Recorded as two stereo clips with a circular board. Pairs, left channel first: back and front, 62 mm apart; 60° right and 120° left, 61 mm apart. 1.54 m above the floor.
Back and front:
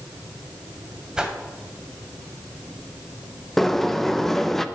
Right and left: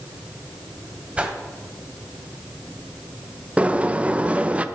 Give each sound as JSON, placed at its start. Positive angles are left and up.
{"t": 1.2, "sound": "a whoosh", "azimuth_deg": 65, "distance_m": 1.5}
{"t": 3.6, "sound": "a sliding door", "azimuth_deg": 100, "distance_m": 0.7}